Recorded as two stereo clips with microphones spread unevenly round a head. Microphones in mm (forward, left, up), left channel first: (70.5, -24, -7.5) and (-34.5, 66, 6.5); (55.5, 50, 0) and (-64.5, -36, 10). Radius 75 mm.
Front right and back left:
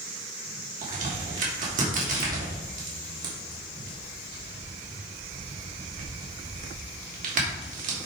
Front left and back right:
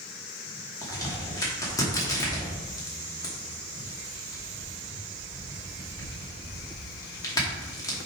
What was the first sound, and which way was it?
A crack, 105° left.